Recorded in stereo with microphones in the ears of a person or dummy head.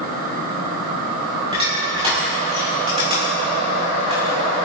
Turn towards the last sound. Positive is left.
turn(degrees=-30)  # may be behind; listen again after turning